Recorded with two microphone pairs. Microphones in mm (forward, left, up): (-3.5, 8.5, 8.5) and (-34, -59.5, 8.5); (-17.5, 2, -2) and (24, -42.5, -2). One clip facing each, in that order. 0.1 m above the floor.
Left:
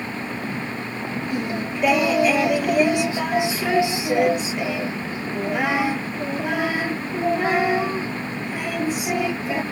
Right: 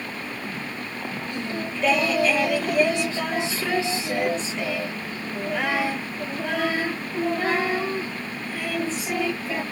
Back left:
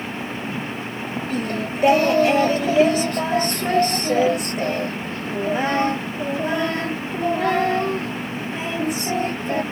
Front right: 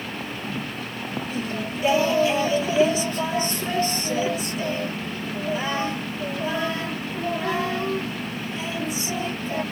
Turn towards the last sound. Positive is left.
turn(degrees=140)